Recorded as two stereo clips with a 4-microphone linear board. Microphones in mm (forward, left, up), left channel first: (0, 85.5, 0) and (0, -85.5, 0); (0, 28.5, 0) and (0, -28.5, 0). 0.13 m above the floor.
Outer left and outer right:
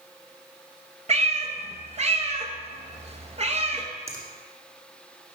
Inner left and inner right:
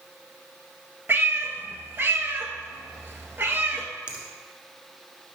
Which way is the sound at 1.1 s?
40° right (ahead or behind).